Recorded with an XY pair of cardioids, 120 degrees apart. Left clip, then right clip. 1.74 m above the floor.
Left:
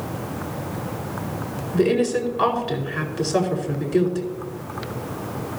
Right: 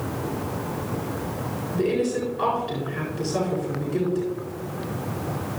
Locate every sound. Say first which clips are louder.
1.7 s a woman speaking: left 4 dB; 45° left, 4 m